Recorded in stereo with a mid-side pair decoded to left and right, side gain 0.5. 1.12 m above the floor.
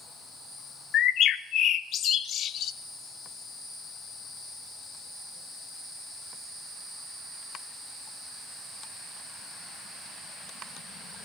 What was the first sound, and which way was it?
A bird, 60° left.